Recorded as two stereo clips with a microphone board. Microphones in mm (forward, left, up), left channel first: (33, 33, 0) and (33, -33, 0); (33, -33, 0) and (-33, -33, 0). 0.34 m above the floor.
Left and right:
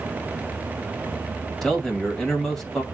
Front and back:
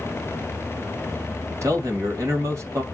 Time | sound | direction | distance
1.6 | a man speaking | 170° left | 2 m